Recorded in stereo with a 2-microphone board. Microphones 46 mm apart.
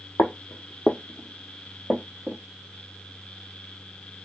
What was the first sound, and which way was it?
Footsteps, 70° left (ahead or behind).